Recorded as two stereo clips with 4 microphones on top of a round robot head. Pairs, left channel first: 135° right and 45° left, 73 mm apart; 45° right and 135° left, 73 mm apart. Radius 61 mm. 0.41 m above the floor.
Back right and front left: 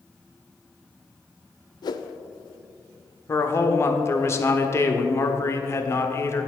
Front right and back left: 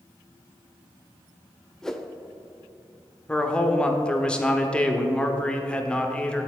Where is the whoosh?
130° right, 0.6 m.